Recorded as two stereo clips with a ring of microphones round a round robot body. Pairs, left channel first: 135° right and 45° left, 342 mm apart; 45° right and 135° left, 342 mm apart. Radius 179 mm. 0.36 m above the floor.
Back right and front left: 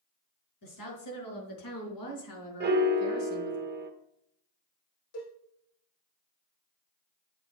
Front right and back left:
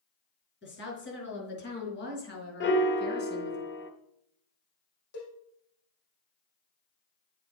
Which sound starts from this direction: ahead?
A piano, at 2.6 s.